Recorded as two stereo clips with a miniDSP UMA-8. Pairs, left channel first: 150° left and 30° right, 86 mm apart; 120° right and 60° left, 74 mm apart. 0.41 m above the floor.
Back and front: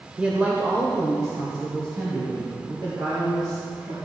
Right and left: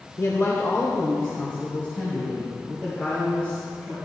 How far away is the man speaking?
About 1.2 m.